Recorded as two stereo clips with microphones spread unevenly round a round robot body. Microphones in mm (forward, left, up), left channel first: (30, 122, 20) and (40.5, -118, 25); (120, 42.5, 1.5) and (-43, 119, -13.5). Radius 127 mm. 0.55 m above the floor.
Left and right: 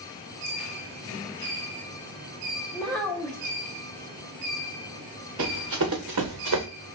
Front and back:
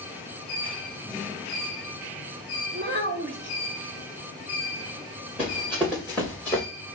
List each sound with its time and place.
2.7 s a child speaking: straight behind, 1.4 m
5.4 s running footsteps: 115° right, 2.5 m; by 6.7 s 100° right, 1.3 m